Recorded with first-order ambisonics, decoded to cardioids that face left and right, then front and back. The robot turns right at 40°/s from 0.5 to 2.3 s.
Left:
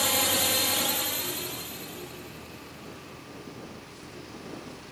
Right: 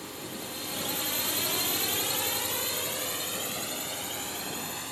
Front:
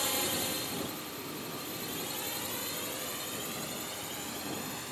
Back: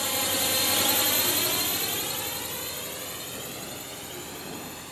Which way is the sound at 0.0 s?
100° left.